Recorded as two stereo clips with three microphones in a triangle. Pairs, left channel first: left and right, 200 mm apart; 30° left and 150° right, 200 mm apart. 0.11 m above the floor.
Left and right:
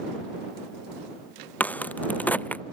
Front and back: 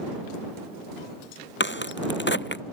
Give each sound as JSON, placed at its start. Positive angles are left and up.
{"t": 1.6, "sound": "a crack", "azimuth_deg": 10}